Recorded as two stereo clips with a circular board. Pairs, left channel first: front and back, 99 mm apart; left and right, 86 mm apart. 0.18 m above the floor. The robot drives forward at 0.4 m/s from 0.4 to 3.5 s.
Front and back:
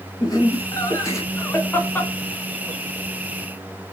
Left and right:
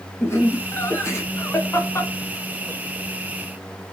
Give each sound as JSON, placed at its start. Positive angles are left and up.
{"t": 0.2, "sound": "laughter", "azimuth_deg": 40, "distance_m": 1.8}